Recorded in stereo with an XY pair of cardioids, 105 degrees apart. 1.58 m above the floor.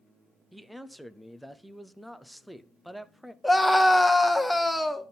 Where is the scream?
5° left, 1.1 m.